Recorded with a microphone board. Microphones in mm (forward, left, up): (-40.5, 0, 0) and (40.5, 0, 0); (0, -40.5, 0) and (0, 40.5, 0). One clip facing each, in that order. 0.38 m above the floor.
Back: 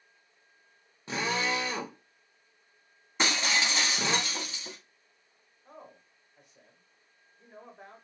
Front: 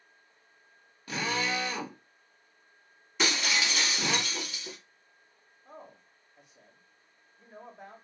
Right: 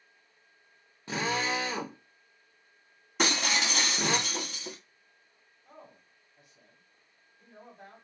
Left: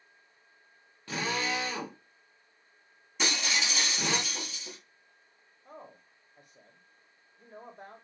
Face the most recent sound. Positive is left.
turn(degrees=90)